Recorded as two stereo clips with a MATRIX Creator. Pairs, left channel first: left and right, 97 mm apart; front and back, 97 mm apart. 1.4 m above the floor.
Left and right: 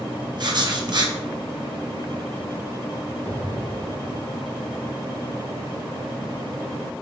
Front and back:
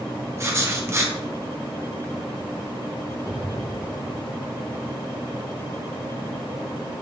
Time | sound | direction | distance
0.4 | writing | 125° right | 0.6 m
3.2 | an explosion | 120° left | 0.6 m